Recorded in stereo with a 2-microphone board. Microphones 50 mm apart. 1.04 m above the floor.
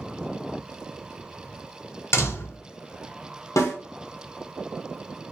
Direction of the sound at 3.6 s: 85° left.